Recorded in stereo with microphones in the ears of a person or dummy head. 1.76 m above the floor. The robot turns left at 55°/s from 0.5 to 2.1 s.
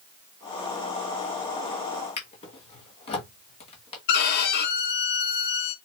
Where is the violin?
55° left (ahead or behind), 0.9 m.